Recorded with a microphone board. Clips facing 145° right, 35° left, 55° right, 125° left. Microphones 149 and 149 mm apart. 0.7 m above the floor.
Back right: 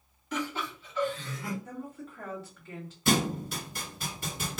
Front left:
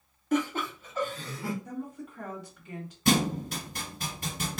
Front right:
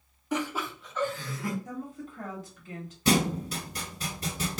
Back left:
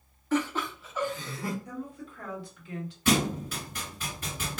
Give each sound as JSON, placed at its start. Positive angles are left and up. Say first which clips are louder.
{"t": 0.3, "sound": "laughter", "louder": "front left 6 dB, back left 3 dB", "azimuth_deg": 15, "distance_m": 1.0}
{"t": 1.6, "sound": "a woman speaking", "louder": "front left 3 dB, front right 1 dB", "azimuth_deg": -35, "distance_m": 1.5}
{"t": 3.0, "sound": "a thud", "louder": "front left 2 dB, front right 1 dB", "azimuth_deg": 0, "distance_m": 1.6}